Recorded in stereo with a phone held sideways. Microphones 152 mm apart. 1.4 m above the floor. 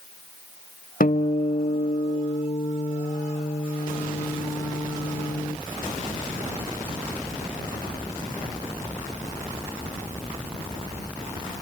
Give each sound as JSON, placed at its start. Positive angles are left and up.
{"t": 1.0, "sound": "a guitar", "side_deg": 70, "distance_m": 0.5}